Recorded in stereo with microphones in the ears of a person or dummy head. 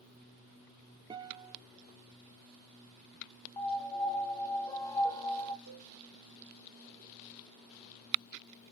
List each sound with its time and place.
1.1 s a guitar: 20° right (ahead or behind), 0.5 m
3.6 s a piano: 20° left (ahead or behind), 0.6 m
5.7 s a cowbell: 65° right (ahead or behind), 1.8 m